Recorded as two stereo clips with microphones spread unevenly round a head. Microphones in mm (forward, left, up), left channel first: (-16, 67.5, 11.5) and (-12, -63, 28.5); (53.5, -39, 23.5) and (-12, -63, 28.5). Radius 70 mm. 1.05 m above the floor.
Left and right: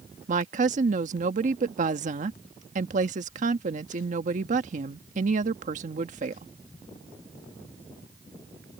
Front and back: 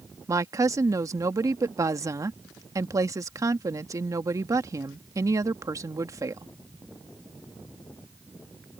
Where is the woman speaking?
120° right.